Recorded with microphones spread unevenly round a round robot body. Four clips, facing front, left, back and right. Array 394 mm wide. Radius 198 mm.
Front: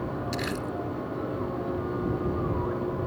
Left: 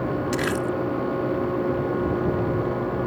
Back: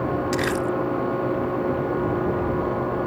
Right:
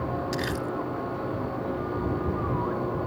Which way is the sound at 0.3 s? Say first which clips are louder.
Left 5 dB, back 8 dB; 115° left.